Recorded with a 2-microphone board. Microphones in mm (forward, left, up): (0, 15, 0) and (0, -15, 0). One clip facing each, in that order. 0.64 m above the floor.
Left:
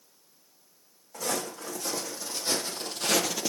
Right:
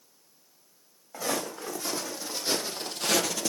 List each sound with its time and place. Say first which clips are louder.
1.1 s footsteps: right 1 dB; 20° right (ahead or behind), 2 m; by 3.5 s 5° left (ahead or behind), 0.8 m